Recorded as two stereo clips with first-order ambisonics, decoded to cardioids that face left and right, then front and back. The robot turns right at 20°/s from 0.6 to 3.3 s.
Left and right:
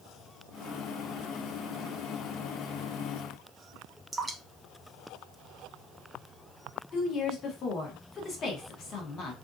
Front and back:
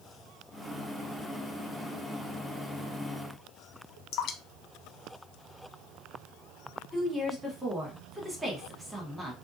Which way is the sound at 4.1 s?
15° right.